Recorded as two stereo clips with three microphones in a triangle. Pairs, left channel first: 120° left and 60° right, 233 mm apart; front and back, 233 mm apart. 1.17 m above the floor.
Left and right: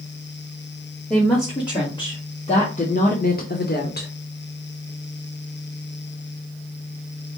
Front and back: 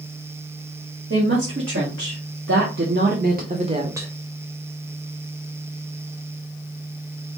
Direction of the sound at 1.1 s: 165° right.